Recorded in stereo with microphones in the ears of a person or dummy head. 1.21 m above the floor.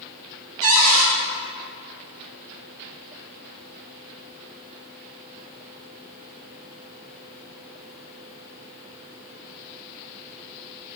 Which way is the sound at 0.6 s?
70° right (ahead or behind).